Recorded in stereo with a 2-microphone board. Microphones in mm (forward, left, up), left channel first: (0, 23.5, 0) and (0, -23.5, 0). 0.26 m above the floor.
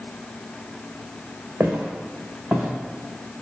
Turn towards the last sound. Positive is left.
turn(degrees=-10)  # may be behind; listen again after turning